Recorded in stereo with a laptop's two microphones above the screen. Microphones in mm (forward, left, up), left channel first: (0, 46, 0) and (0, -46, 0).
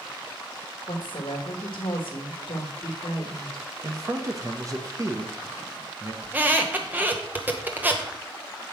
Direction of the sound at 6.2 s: 20° right (ahead or behind).